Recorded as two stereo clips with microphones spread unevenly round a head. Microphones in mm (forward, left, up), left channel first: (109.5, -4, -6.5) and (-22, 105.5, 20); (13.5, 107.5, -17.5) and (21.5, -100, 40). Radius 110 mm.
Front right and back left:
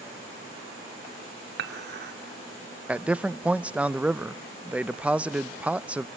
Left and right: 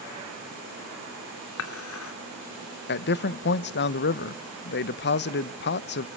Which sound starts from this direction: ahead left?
A man speaking, at 2.9 s.